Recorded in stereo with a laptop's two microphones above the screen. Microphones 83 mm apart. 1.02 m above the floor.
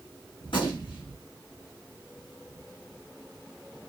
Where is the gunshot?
75° left (ahead or behind), 1.4 m.